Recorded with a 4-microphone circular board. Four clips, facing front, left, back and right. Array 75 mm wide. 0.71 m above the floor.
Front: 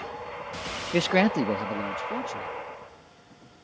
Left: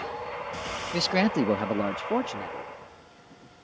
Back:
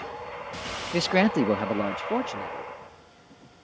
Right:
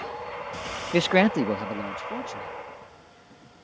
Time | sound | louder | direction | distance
0.9 | a man speaking | right 4 dB, even | 65° right | ?